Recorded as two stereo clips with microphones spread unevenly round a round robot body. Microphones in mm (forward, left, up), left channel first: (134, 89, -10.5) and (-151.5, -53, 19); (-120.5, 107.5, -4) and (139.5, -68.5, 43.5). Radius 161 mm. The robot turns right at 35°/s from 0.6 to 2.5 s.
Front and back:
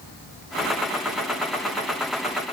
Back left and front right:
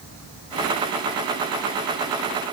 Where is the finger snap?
No finger snap in this recording.